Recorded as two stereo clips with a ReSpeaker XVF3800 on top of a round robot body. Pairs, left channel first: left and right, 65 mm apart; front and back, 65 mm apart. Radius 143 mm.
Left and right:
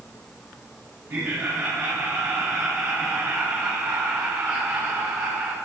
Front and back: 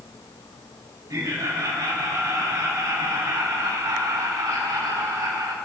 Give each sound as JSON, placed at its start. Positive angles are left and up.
{"t": 1.1, "sound": "laughter", "azimuth_deg": -140, "distance_m": 5.5}